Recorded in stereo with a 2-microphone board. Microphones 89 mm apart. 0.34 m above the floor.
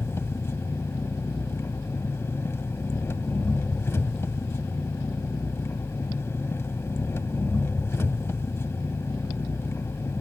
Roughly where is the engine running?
Left.